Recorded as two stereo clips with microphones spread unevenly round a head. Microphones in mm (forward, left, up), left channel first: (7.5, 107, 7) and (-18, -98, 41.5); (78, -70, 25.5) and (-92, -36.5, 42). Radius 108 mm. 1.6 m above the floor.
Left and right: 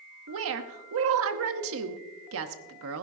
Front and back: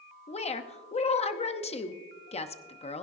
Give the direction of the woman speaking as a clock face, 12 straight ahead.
2 o'clock.